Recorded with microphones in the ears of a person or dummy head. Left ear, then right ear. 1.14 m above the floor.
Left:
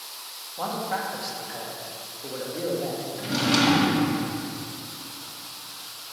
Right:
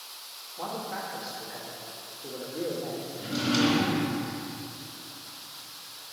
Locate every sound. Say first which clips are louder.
0.6 s a man speaking: left 6 dB; 70° left (ahead or behind), 1.5 m
3.2 s a drawer: left 4 dB; 55° left (ahead or behind), 1.7 m